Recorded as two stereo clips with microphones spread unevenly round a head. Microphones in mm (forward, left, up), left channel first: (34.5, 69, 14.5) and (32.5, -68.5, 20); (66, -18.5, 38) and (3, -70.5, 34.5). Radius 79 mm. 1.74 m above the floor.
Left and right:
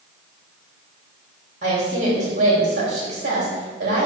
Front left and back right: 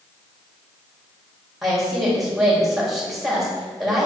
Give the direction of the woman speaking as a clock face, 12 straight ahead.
2 o'clock.